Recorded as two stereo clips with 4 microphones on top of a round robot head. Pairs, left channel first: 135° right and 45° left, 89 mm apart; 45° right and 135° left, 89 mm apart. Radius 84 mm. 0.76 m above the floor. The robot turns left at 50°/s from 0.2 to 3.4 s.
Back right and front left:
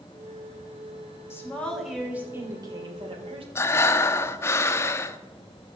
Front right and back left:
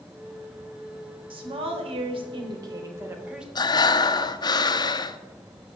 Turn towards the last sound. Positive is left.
turn(degrees=-80)